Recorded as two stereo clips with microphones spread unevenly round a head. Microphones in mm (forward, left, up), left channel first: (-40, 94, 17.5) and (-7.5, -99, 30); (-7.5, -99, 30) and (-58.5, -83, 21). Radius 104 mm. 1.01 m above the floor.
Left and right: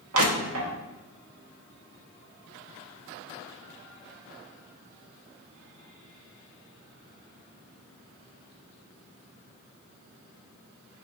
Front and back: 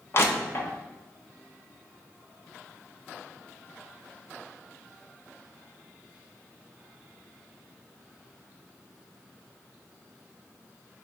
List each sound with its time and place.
0.1 s crushing: 55° right, 0.8 m